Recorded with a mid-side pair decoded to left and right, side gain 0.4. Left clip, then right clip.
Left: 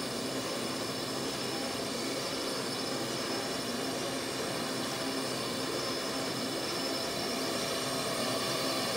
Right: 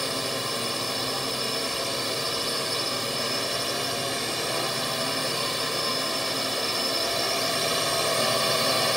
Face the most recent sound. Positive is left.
turn(degrees=-70)